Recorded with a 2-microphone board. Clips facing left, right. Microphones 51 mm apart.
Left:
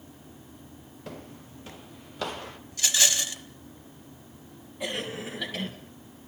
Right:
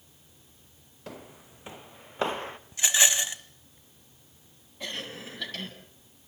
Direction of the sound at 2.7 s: 20° right (ahead or behind).